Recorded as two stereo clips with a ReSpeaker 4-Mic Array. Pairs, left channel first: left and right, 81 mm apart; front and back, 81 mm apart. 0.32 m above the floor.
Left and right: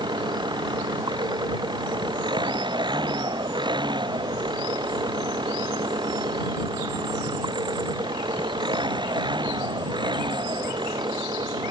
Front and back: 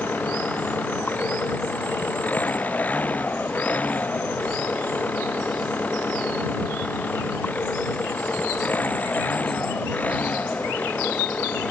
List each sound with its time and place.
0.0 s an engine running: 70° right